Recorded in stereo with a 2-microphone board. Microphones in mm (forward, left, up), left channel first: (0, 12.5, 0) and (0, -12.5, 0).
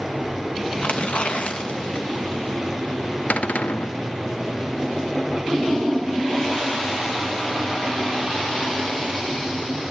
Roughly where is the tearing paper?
Left.